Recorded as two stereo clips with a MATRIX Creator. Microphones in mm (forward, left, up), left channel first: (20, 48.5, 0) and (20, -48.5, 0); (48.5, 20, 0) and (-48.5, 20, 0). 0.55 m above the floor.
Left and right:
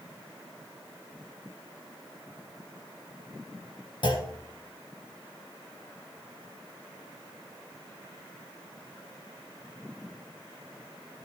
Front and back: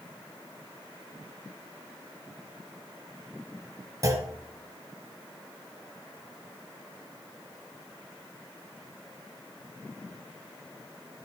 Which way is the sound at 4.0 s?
125° left.